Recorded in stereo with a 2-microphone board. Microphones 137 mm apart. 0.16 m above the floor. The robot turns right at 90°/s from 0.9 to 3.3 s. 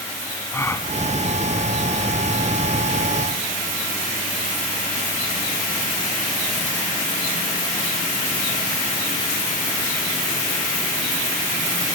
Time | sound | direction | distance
0.5 | a gasp | 20° left (ahead or behind) | 1.1 m